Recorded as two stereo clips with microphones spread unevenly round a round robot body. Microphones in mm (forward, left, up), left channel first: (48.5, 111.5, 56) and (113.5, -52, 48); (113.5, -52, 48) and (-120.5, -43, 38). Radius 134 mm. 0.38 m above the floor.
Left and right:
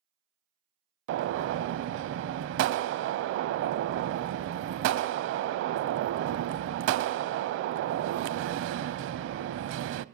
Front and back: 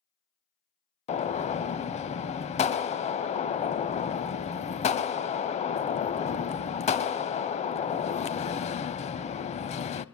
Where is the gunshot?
65° right, 0.5 m.